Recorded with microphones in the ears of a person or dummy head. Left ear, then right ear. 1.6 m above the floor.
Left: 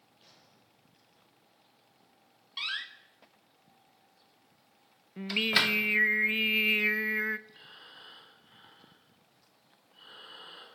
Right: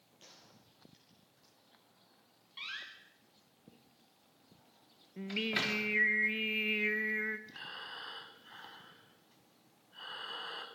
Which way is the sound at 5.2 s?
30° left (ahead or behind).